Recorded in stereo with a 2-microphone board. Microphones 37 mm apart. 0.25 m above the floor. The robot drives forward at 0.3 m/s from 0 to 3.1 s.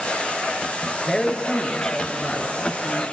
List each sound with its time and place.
1.1 s a man speaking: 10° left (ahead or behind), 3 m